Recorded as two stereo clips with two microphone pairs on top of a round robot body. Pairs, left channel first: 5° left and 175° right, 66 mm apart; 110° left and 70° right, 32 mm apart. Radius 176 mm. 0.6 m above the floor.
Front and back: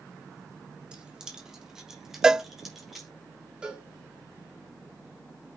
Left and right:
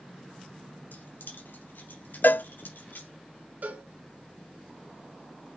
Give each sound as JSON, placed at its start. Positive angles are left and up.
{"t": 0.9, "sound": "keys jangling", "azimuth_deg": 110, "distance_m": 2.5}
{"t": 2.2, "sound": "a cowbell", "azimuth_deg": 105, "distance_m": 0.5}
{"t": 3.6, "sound": "a cowbell", "azimuth_deg": -95, "distance_m": 2.0}